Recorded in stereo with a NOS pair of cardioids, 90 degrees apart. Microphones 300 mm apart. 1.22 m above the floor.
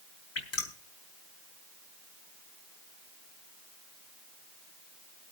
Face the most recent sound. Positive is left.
turn(degrees=55)